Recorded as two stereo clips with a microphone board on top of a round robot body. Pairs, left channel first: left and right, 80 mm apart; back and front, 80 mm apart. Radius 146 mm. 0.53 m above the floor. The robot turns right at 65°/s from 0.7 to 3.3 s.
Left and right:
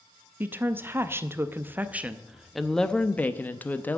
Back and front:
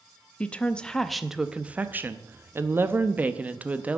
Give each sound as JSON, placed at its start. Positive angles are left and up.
{"t": 0.4, "sound": "a woman speaking", "azimuth_deg": -120, "distance_m": 0.8}